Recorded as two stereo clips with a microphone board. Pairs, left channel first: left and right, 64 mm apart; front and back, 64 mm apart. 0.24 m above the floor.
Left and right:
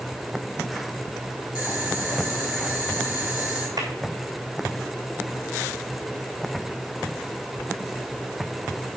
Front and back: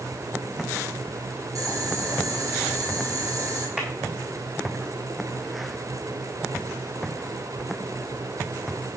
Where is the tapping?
105° right, 3 m.